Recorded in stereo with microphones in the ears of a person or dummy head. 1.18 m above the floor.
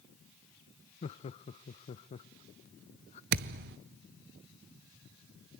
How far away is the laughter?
About 0.6 m.